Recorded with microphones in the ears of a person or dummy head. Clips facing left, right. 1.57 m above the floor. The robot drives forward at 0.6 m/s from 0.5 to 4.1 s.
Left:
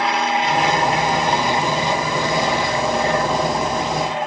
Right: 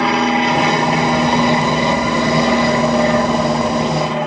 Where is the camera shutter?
No camera shutter in this recording.